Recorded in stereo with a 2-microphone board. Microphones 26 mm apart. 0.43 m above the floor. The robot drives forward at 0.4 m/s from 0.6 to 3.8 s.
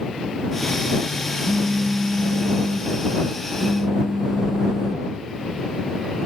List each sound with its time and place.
1.4 s a phone buzzing: 40° right (ahead or behind); by 5.1 s 20° right (ahead or behind)